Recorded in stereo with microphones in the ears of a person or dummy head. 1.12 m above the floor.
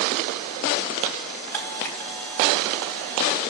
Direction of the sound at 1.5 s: 10° left (ahead or behind).